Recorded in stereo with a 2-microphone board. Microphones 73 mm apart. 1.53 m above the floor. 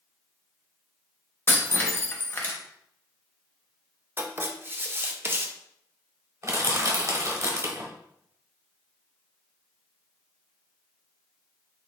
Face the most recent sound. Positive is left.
turn(degrees=-40)  # may be behind; listen again after turning